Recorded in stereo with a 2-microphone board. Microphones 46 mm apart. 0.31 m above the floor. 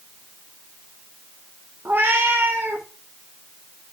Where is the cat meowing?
50° right (ahead or behind), 1.7 m; by 2.9 s 60° right (ahead or behind), 2.5 m.